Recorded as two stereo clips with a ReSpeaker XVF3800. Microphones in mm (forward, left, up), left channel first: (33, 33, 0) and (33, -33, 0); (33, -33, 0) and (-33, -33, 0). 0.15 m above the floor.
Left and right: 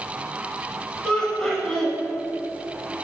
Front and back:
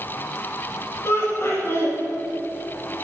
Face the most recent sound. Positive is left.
turn(degrees=20)